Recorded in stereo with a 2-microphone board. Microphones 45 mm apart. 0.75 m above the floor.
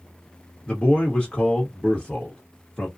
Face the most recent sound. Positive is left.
turn(degrees=20)  # may be behind; listen again after turning